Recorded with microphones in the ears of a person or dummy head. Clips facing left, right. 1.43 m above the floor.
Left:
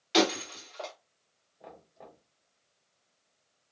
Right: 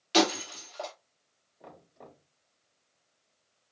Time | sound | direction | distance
0.1 | breaking glass | 20° right (ahead or behind) | 1.7 m
1.6 | knocking | 15° right (ahead or behind) | 2.5 m